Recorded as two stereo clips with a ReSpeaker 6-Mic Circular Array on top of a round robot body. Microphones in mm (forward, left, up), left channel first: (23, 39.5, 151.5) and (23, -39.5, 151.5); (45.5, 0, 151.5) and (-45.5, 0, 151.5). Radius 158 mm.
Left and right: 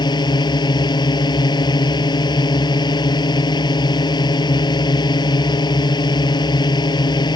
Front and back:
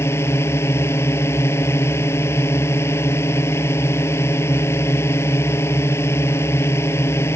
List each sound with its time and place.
0.0 s a drone: 65° left